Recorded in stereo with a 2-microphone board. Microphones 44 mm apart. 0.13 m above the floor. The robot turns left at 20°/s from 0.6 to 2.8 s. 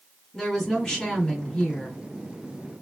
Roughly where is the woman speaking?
Centre.